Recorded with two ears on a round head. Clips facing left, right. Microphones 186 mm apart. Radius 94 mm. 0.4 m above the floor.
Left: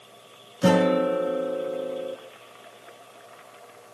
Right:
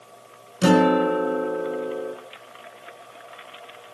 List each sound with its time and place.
0.6 s a guitar: 60° right (ahead or behind), 4 m